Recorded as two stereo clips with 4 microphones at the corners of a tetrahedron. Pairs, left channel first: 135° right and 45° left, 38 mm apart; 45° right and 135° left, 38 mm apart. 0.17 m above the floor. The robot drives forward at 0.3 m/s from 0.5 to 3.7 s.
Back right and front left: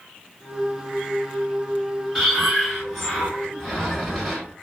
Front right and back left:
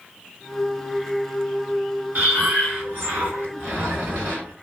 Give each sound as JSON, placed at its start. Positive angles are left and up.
{"t": 2.1, "sound": "breathing", "azimuth_deg": 135, "distance_m": 2.5}